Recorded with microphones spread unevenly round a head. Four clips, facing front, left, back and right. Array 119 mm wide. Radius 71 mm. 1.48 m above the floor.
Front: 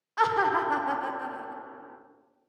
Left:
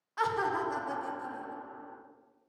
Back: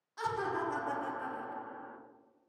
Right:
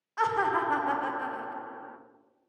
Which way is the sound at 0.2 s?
15° right.